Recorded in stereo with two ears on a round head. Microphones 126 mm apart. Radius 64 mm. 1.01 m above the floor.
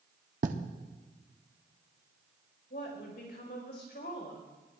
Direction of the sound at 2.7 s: 80° left.